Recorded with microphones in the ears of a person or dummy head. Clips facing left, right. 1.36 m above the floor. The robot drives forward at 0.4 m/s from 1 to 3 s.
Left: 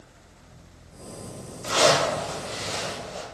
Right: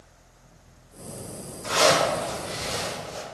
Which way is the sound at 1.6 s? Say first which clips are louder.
Even; 35° left (ahead or behind).